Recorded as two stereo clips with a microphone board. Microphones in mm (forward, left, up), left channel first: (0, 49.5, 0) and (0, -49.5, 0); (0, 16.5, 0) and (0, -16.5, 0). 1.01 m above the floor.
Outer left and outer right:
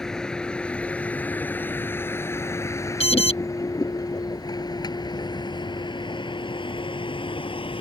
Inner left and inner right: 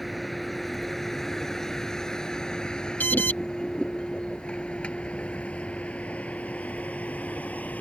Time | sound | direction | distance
0.0 | a vehicle | 5° left (ahead or behind) | ?
3.0 | an alarm | 70° left (ahead or behind) | ?